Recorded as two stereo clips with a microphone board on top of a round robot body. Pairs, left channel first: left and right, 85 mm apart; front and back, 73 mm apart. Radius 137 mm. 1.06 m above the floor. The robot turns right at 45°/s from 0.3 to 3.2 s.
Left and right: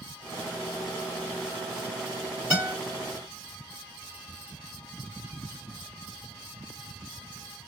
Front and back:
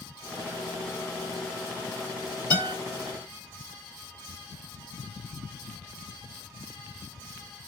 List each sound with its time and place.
2.5 s a guitar: 20° right, 1.5 m; by 2.8 s 10° right, 1.5 m